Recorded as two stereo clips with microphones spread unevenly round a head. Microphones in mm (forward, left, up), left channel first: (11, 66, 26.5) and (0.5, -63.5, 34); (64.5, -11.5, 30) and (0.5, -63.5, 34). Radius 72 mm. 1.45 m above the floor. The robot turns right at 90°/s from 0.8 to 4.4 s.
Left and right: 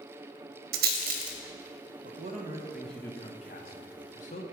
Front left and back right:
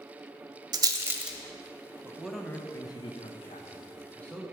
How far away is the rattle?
About 0.9 m.